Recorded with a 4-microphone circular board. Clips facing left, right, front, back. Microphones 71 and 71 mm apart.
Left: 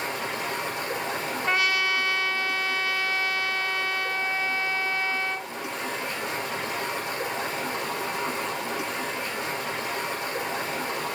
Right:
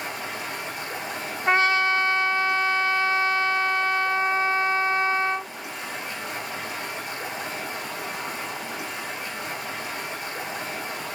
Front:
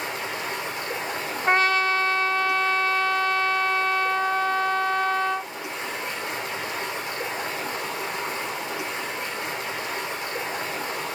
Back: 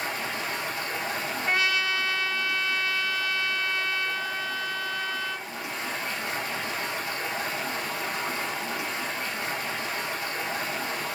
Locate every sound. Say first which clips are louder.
0.0 s running water: left 2 dB, front 1 dB; 65° left, 4.5 m
1.5 s a trumpet: right 5 dB, front 6 dB; 40° right, 0.9 m